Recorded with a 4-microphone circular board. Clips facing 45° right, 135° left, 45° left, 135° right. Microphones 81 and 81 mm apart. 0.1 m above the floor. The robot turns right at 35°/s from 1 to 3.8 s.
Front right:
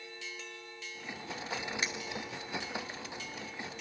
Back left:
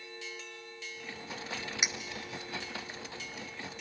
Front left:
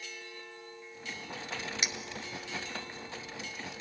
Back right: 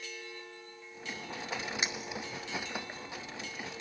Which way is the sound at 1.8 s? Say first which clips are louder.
Front right 1 dB, back right 2 dB; 165° right.